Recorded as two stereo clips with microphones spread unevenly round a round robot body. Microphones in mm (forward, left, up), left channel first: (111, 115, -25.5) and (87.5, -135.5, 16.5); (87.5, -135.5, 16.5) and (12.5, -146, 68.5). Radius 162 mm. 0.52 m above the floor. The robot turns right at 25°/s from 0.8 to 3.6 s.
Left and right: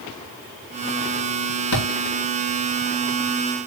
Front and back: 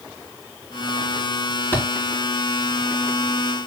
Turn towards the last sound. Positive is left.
turn(degrees=135)